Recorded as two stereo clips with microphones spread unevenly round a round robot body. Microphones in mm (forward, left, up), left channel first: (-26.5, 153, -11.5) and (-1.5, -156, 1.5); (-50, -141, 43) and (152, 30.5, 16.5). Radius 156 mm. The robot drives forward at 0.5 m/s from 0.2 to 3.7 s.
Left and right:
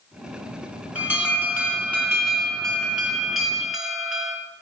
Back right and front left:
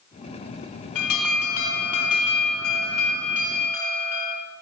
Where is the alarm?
170° right, 2 m; by 4.4 s 175° right, 3.5 m.